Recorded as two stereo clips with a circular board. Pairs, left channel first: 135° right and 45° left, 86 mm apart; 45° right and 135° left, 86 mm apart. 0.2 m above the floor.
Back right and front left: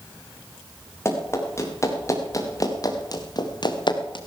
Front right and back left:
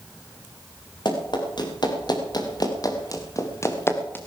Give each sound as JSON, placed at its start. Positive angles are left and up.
{"t": 1.1, "sound": "running footsteps", "azimuth_deg": -75, "distance_m": 6.5}